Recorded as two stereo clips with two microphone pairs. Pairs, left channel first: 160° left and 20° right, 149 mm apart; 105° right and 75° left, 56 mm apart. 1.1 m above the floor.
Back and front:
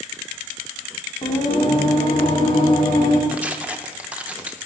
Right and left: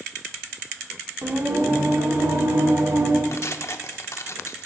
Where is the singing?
105° left, 1.7 m.